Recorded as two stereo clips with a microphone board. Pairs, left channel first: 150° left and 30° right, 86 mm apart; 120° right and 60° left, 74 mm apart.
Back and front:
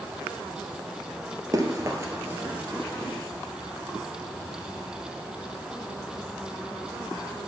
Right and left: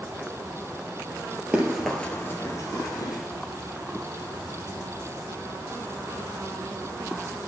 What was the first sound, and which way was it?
Running footsteps, 5° right.